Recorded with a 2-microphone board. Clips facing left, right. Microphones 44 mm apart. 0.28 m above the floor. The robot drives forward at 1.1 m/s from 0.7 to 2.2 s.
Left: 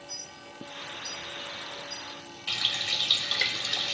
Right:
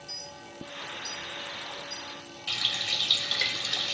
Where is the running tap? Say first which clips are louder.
Even; 15° left (ahead or behind), 0.9 m.